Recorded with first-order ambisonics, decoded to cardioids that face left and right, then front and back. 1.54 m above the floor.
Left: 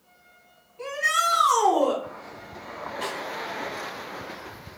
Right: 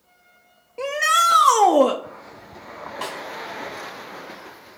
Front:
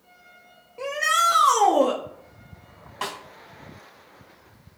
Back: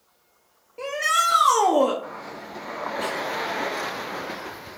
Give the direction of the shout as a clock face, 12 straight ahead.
3 o'clock.